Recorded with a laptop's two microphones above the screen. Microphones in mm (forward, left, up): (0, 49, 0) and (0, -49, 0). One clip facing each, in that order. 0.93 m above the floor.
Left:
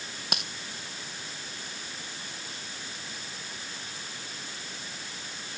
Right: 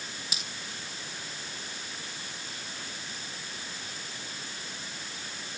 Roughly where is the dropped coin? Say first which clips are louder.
Left 6 dB; left.